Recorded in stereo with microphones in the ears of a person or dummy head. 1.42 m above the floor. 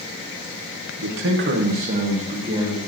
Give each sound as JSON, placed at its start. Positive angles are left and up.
{"t": 1.0, "sound": "a man speaking", "side_deg": -80, "distance_m": 1.0}